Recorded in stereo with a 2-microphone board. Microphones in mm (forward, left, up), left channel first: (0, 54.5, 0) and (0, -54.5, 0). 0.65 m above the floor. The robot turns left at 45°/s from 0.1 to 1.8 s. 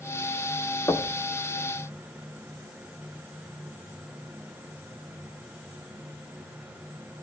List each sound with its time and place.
0.9 s knocking: 20° left (ahead or behind), 1.2 m; by 1.2 s 30° left (ahead or behind), 1.2 m